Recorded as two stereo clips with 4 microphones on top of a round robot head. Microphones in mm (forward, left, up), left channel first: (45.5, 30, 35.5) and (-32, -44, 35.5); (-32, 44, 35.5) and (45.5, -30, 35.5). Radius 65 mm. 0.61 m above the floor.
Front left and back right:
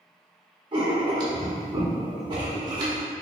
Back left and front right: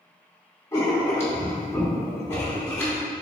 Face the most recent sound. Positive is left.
turn(degrees=-165)